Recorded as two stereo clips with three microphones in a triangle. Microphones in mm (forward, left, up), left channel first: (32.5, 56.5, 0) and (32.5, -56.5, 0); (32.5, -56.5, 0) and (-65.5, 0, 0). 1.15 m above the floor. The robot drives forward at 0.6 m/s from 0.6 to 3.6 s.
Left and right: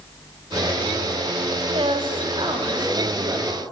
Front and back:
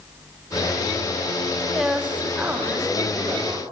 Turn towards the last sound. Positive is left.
turn(degrees=-145)